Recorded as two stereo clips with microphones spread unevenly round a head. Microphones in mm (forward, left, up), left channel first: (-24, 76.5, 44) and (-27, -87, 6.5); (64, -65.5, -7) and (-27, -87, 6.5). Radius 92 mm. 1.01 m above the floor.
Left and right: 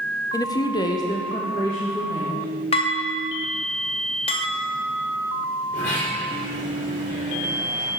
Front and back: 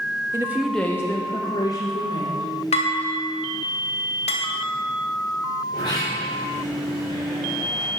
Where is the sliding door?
95° left, 3.5 m.